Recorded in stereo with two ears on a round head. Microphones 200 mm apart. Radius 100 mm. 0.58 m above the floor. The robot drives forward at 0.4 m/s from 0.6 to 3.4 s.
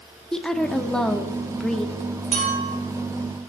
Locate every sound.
0.3 s a woman speaking: 5° left (ahead or behind), 0.9 m; by 1.9 s centre (ahead or behind), 1.2 m
2.3 s a clink: 35° right (ahead or behind), 5 m; by 2.7 s 30° right (ahead or behind), 5 m